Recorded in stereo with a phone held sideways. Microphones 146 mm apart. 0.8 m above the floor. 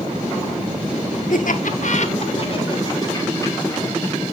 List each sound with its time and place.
1.3 s laughter: 70° left (ahead or behind), 1.6 m; by 4.2 s 20° left (ahead or behind), 4 m